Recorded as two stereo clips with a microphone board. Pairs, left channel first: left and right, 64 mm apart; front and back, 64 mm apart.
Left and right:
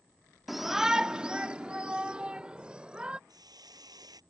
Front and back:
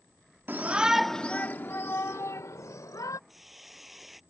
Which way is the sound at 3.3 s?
95° right.